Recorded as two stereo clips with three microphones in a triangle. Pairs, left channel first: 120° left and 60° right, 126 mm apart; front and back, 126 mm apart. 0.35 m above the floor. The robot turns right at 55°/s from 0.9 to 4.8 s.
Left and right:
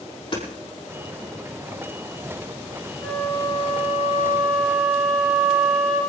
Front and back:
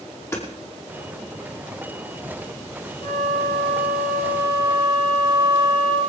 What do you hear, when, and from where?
0.3 s hammering: 70° left, 6 m
3.0 s a flute: 40° left, 5 m; by 6.0 s 135° left, 5 m